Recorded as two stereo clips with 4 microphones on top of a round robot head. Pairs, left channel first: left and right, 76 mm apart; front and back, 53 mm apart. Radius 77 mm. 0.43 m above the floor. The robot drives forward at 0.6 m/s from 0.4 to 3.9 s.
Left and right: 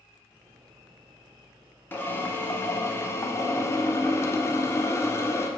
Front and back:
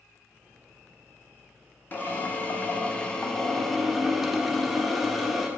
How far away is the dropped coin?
I don't hear a dropped coin.